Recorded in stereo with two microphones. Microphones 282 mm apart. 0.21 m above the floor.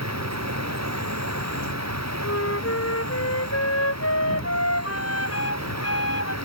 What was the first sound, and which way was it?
An insect, 70° right (ahead or behind).